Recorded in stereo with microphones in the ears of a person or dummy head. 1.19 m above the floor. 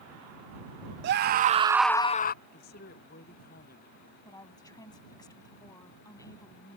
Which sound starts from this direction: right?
A scream, at 1.0 s.